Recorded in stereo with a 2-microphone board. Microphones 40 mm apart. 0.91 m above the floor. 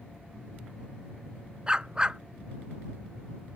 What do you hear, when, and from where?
1.7 s a dog barking: 20° right (ahead or behind)